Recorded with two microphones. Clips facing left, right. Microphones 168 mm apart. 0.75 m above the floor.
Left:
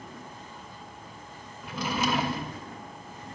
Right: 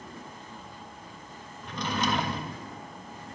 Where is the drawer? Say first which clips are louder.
Left 1 dB; 5° left (ahead or behind), 0.5 m.